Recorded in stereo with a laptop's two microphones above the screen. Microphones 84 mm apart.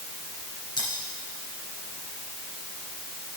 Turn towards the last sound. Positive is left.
turn(degrees=55)  # may be behind; listen again after turning